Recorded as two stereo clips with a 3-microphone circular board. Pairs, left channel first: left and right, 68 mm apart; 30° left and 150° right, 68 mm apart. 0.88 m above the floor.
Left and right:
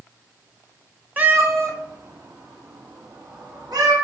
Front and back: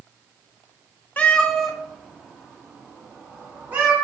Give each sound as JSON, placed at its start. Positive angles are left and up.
{"t": 1.2, "sound": "a cat meowing", "azimuth_deg": -35, "distance_m": 0.9}